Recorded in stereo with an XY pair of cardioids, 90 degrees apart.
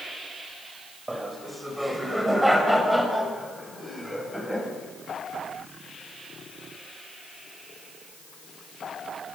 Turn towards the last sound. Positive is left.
turn(degrees=5)